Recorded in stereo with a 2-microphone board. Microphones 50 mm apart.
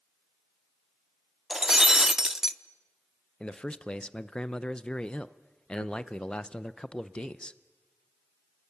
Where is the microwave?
I don't hear a microwave.